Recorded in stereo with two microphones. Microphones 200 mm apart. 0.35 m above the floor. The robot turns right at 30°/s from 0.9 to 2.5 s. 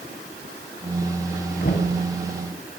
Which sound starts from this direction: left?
Knocking, at 1.6 s.